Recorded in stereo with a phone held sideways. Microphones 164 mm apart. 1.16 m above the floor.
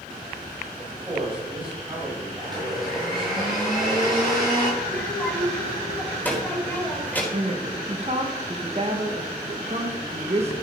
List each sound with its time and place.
0.8 s a man speaking: 30° right (ahead or behind), 5.5 m
2.4 s a blender: 25° right (ahead or behind), 5 m
4.8 s a child speaking: 10° left (ahead or behind), 4 m
7.3 s a woman speaking: 40° right (ahead or behind), 1.3 m